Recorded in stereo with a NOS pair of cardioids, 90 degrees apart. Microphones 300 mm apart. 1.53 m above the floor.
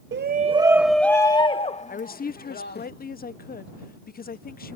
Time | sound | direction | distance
0.1 | a shout | 40° right | ?
1.9 | a woman speaking | 30° left | ?